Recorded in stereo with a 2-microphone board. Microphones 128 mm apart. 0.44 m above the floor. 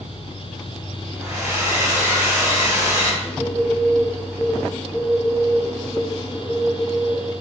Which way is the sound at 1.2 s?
20° right (ahead or behind).